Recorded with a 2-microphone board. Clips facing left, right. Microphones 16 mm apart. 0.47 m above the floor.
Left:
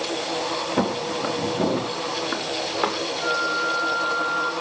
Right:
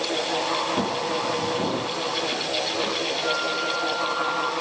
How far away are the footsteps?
About 7 m.